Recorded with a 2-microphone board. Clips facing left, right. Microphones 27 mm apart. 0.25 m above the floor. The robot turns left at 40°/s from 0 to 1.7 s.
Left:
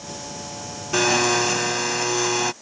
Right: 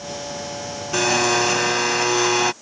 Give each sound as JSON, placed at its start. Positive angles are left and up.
{"t": 0.9, "sound": "a blender", "azimuth_deg": 5}